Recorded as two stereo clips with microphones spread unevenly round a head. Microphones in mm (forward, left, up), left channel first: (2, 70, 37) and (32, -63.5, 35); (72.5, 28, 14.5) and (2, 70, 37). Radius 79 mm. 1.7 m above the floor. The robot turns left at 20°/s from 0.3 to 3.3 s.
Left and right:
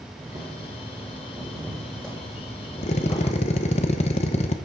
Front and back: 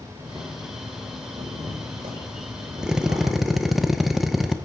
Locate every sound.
0.2 s boiling: 140° right, 6 m; by 3.8 s 160° left, 6 m
2.8 s a drill: 90° left, 0.9 m; by 4.6 s 80° left, 0.9 m